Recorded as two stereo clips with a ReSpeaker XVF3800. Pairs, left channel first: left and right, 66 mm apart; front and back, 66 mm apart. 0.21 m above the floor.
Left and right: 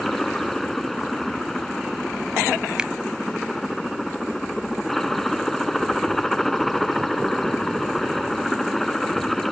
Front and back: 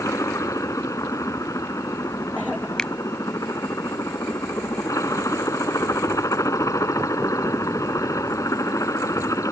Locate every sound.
0.0 s a helicopter: 5° left
2.8 s a finger snap: 50° right